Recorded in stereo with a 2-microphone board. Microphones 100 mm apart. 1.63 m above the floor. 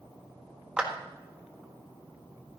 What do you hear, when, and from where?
0.8 s a clap: 10° right (ahead or behind), 1.7 m